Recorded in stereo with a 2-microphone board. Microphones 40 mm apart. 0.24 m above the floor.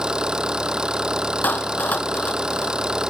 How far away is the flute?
No flute in this recording.